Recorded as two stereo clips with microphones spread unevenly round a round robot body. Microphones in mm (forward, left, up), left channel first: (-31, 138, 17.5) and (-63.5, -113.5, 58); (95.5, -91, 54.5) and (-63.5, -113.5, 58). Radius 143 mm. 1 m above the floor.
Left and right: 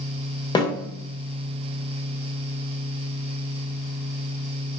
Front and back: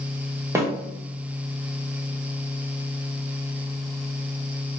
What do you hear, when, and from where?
0.6 s a snare drum: 125° left, 0.7 m